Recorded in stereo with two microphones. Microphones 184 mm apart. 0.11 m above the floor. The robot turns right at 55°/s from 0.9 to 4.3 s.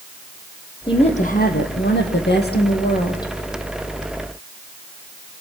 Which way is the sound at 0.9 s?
25° left.